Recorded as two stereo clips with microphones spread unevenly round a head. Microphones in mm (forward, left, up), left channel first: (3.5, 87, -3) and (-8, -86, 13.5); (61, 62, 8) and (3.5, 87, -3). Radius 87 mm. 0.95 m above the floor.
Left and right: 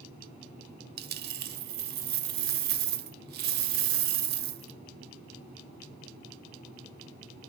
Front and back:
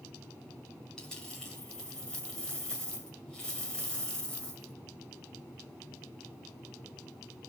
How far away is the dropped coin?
About 1.0 m.